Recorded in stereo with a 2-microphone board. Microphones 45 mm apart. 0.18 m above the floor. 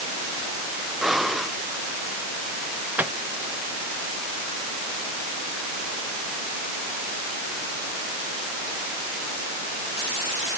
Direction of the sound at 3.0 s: 50° right (ahead or behind).